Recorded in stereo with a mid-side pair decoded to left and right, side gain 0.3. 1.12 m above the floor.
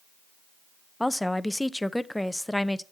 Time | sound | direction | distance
1.0 | a woman speaking | 15° left | 0.6 m